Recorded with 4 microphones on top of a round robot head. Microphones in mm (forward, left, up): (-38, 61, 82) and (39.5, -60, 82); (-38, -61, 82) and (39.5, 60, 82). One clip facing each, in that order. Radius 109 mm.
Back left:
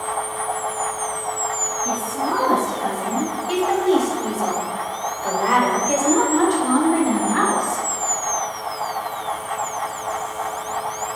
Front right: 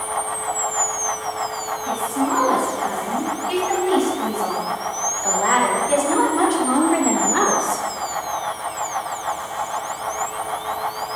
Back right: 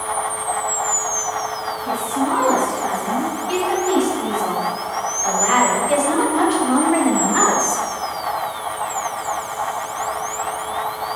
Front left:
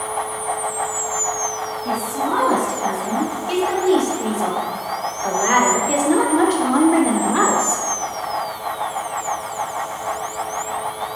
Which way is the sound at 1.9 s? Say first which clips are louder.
Front right 3 dB, back right 2 dB; 80° left.